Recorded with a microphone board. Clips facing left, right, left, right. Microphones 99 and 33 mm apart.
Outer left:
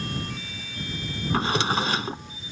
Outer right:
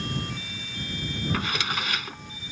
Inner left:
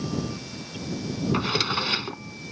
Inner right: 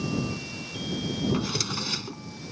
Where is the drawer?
35° left (ahead or behind).